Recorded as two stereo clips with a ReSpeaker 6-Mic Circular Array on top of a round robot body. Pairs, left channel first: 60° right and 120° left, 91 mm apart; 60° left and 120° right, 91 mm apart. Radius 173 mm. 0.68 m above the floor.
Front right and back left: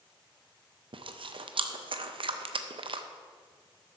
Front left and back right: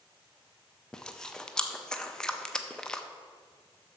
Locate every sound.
0.9 s chewing: 145° left, 0.6 m